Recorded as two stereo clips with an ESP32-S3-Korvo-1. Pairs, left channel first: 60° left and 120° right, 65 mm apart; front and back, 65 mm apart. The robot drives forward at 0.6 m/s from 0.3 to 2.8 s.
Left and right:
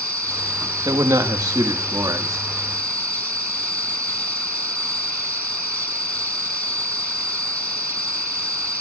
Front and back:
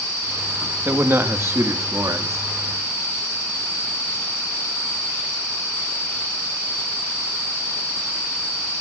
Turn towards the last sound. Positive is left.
turn(degrees=-150)